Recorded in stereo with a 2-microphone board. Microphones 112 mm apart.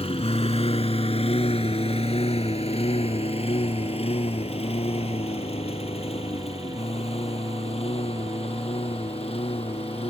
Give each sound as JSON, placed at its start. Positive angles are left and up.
{"t": 0.0, "sound": "a lawn mower", "side_deg": 70}